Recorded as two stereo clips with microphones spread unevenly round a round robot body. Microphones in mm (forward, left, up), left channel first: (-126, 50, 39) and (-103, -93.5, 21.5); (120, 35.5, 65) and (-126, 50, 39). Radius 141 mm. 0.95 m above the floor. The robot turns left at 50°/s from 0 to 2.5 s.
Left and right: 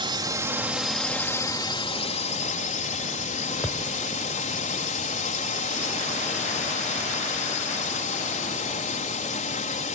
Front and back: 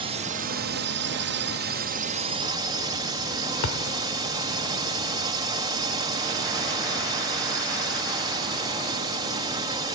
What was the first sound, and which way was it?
A drone, 125° right.